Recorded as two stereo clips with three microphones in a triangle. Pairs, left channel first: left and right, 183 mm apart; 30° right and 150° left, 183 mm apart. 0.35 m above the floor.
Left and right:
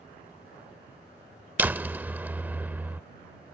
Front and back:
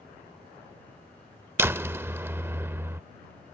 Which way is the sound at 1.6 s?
155° right.